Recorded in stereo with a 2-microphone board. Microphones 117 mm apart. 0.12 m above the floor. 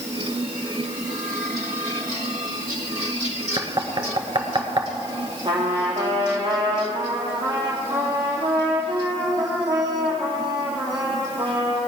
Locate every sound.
3.6 s knocking: 45° right (ahead or behind), 1.3 m
5.5 s a trumpet: 40° right (ahead or behind), 3 m